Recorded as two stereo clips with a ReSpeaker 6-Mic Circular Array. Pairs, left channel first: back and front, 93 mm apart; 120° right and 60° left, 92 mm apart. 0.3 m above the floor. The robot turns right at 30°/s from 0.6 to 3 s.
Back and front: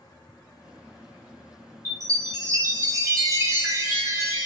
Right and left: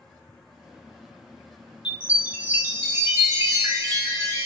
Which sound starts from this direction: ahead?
A chime, at 1.9 s.